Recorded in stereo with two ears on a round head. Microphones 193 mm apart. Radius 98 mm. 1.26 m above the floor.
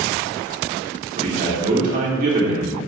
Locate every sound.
1.2 s a man speaking: 45° right (ahead or behind), 4 m